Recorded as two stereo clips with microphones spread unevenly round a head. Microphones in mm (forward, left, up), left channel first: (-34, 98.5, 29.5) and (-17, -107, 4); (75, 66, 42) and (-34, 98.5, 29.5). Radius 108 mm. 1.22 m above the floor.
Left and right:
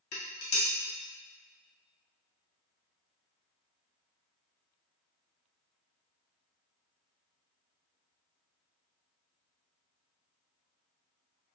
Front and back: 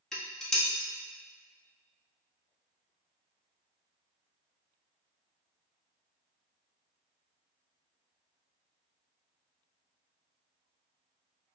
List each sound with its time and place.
0.1 s dishes clattering: 65° left, 1.4 m